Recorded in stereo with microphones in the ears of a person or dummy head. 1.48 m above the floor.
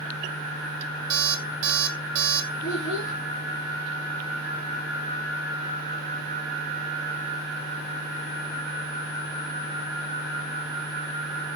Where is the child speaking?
70° left (ahead or behind), 1.6 m.